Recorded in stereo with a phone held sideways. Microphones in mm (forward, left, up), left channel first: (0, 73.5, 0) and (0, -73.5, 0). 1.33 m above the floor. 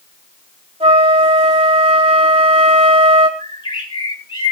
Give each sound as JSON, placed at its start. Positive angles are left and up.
{"t": 0.8, "sound": "a flute", "side_deg": -40, "distance_m": 4.0}
{"t": 3.4, "sound": "a bird", "side_deg": 30, "distance_m": 9.0}